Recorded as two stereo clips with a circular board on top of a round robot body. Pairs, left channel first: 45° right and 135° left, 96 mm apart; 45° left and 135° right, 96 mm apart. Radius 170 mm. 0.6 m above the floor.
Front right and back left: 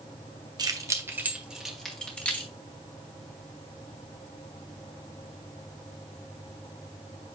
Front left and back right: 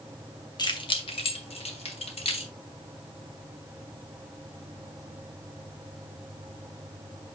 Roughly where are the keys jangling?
Left.